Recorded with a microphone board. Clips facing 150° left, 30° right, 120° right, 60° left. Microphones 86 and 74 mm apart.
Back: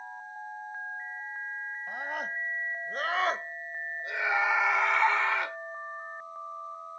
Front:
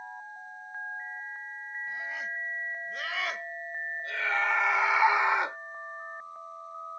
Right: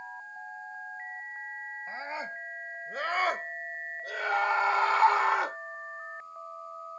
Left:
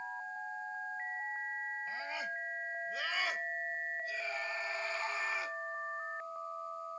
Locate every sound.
1.9 s a scream: 175° right; by 5.6 s 95° right